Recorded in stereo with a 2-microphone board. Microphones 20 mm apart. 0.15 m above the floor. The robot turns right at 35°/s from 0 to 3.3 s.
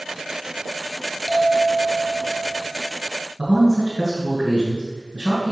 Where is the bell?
Straight behind, 1.8 m; by 2.7 s 130° right, 1.8 m.